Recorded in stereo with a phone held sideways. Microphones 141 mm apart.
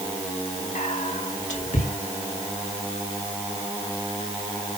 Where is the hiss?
I don't hear a hiss.